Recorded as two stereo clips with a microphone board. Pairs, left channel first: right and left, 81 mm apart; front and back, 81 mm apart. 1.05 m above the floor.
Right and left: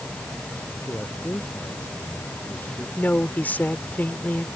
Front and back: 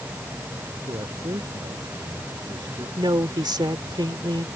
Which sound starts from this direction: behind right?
A man speaking, at 0.8 s.